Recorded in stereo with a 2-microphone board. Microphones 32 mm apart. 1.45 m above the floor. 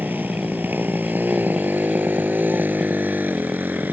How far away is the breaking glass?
I don't hear breaking glass.